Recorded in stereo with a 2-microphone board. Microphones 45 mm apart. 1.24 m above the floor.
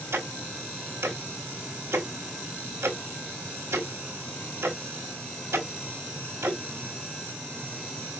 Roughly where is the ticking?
Right.